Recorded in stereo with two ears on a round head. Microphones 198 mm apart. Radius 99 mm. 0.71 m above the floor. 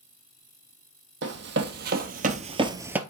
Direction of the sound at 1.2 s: 55° right (ahead or behind).